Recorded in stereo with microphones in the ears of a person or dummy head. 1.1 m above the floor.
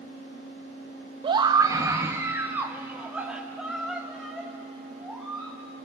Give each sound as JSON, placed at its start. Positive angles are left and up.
{"t": 1.2, "sound": "a scream", "side_deg": -20, "distance_m": 0.9}